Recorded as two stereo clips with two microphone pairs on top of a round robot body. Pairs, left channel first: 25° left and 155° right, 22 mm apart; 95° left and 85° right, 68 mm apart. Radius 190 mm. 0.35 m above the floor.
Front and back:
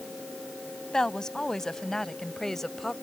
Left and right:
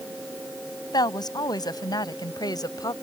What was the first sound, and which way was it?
A woman speaking, 90° left.